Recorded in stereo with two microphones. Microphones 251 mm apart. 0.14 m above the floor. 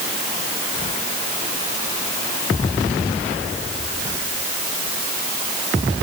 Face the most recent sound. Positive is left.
No sound to turn to.